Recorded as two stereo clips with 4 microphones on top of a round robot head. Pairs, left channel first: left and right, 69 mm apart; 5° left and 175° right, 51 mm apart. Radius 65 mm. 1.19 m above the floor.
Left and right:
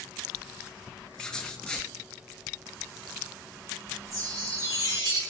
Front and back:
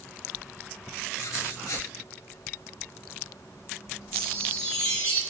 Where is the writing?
10° left, 2.5 m.